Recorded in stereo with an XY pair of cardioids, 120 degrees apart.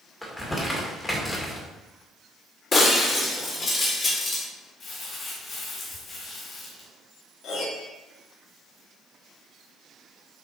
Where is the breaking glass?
35° left, 2.5 m.